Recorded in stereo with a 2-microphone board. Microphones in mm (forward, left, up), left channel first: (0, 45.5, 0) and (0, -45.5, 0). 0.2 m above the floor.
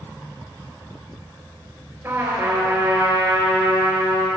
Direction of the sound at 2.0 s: 25° right (ahead or behind).